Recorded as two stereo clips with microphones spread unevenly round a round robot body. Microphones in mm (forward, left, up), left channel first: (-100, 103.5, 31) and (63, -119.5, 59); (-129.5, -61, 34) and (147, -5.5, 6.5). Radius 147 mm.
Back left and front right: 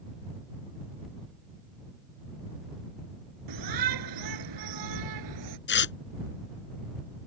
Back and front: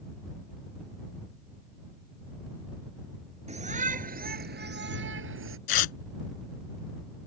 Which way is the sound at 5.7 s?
175° left.